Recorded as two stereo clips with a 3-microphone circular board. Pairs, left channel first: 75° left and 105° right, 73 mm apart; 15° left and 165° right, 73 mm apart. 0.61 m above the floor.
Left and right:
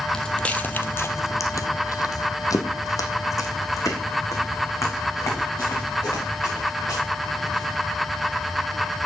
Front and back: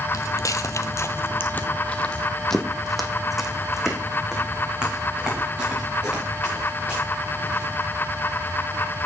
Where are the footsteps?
5° right, 1.0 m; by 7.7 s 125° left, 4.5 m.